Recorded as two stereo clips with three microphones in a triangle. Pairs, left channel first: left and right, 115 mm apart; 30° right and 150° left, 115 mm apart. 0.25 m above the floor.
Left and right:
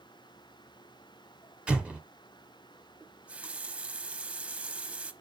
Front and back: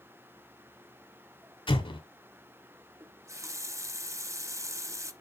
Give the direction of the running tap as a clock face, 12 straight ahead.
5 o'clock.